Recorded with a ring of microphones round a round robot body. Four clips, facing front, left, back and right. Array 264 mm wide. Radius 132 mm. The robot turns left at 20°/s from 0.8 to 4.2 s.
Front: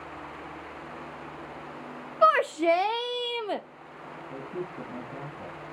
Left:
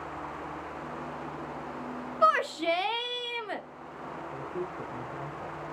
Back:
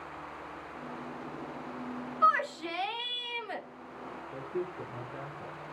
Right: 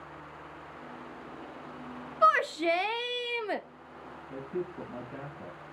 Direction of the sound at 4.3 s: 35° right.